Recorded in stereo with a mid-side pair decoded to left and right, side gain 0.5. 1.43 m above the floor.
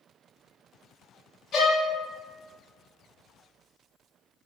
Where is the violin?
55° left, 0.9 m.